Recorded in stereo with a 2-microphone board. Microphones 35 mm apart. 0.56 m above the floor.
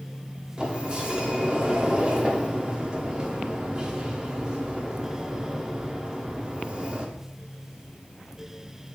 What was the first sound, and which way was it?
A sliding door, 25° right (ahead or behind).